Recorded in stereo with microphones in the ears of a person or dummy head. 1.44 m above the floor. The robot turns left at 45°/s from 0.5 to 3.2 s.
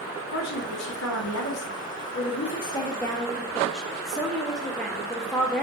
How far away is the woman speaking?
About 1.0 m.